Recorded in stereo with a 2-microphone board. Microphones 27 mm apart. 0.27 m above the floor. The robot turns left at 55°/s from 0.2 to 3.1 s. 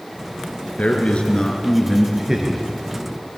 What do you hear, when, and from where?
0.8 s a man speaking: 70° left, 3.5 m; by 2.6 s 30° right, 3.5 m